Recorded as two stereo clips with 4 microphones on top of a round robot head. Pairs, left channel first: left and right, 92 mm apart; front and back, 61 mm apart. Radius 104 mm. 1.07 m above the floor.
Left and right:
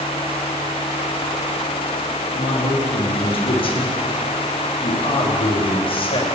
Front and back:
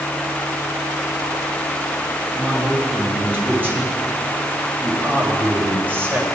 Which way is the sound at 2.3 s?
115° left.